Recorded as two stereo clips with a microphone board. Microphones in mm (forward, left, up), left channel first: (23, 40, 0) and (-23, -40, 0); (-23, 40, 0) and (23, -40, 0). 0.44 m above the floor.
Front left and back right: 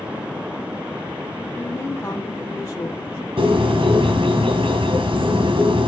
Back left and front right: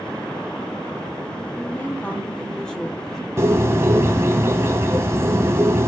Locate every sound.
1.6 s a woman speaking: 95° left, 1.1 m; by 3.2 s 35° left, 1.5 m
3.4 s a bird: 120° right, 2 m